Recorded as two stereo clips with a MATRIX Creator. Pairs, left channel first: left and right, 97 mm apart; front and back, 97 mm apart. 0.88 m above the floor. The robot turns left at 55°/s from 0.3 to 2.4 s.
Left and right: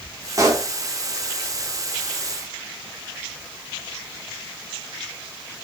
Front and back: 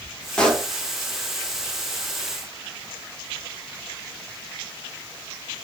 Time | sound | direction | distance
0.4 | a pop | 70° right | 0.9 m